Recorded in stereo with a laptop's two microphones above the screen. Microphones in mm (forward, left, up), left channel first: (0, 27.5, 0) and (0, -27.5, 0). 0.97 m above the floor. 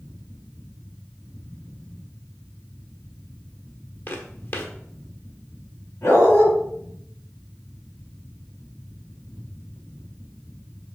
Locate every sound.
0.0 s a fan: 40° left (ahead or behind), 2.5 m
4.1 s footsteps: 45° left (ahead or behind), 1.3 m
6.0 s a dog barking: 60° left (ahead or behind), 4 m